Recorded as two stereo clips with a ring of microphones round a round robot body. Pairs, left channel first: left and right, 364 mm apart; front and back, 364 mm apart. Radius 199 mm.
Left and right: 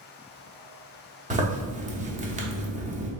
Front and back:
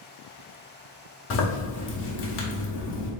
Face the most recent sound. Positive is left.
turn(degrees=-30)